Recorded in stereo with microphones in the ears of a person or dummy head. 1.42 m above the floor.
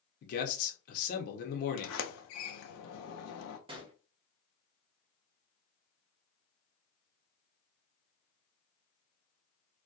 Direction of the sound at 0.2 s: 50° left (ahead or behind).